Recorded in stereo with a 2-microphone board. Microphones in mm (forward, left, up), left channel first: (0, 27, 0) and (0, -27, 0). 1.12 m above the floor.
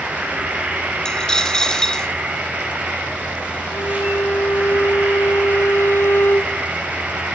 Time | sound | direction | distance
0.0 | an insect | 30° right (ahead or behind) | 6.5 m
1.1 | a dropped coin | 15° left (ahead or behind) | 1.8 m
3.7 | a violin | 60° left (ahead or behind) | 1.0 m